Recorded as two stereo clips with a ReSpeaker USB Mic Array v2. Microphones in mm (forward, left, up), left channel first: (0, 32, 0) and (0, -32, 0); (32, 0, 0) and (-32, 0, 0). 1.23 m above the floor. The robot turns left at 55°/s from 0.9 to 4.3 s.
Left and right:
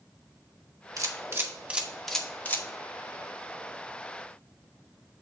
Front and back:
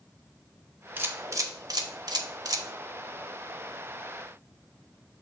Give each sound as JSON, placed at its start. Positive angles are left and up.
{"t": 1.0, "sound": "a camera shutter", "azimuth_deg": -115, "distance_m": 1.1}